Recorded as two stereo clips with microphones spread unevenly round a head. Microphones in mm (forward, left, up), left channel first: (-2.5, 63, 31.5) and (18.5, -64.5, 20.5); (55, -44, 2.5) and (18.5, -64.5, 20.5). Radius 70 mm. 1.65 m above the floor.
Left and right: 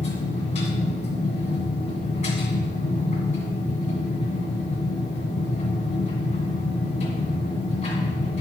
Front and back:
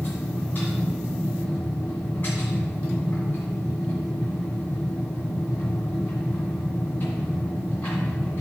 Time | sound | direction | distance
0.0 | a machine running | 115° left | 2.0 m